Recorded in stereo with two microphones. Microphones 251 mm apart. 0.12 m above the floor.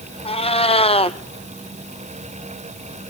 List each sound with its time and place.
0.2 s a cat meowing: 25° left (ahead or behind), 0.7 m